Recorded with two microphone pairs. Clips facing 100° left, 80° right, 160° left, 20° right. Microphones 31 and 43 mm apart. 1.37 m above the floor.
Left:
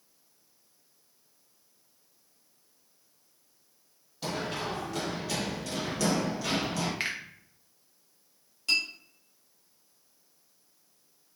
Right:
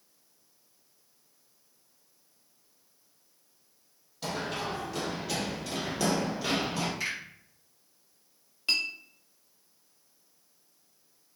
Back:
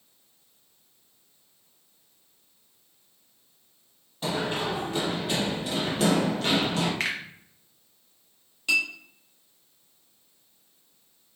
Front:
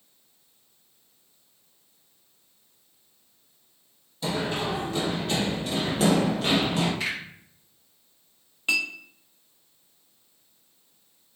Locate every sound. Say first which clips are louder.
4.2 s running footsteps: even, even; straight behind, 1.6 m; by 6.9 s 45° right, 1.4 m
7.0 s a finger snap: left 1 dB, back 1 dB; 140° left, 0.7 m
8.7 s a clink: left 1 dB, back 1 dB; 35° right, 0.6 m